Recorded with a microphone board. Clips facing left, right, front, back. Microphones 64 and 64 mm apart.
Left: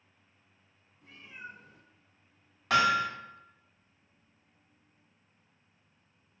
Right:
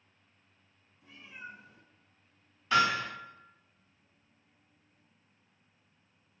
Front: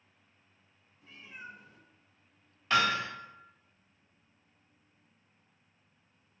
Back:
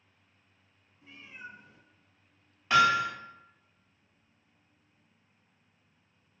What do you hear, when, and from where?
1.0 s a cat meowing: 120° left, 1.7 m
2.7 s hammering: 105° left, 1.4 m